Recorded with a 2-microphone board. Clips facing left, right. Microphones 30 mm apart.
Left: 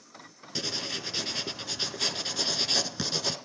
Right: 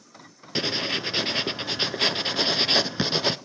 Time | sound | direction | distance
0.6 | writing | 40° right (ahead or behind) | 0.5 m